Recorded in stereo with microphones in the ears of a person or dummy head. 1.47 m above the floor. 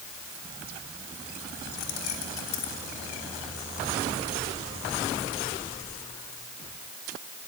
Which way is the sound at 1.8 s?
75° left (ahead or behind).